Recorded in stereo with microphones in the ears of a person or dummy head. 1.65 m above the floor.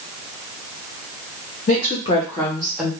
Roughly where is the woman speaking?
Left.